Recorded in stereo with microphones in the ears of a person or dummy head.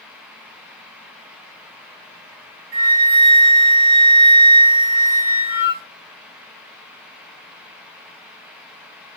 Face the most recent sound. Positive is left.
turn(degrees=-60)  # may be behind; listen again after turning